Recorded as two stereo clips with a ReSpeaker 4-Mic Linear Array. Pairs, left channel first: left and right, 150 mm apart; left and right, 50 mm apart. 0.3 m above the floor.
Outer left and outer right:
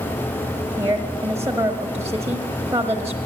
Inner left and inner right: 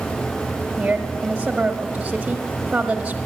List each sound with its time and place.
0.8 s a woman speaking: 20° right (ahead or behind), 1.2 m